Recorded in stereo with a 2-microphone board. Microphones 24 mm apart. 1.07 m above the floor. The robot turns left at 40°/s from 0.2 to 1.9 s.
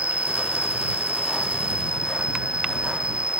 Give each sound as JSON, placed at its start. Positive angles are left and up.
{"t": 0.0, "sound": "an insect", "azimuth_deg": -65}